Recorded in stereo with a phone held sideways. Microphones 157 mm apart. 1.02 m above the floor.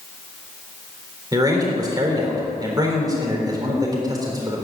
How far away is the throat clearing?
I don't hear throat clearing.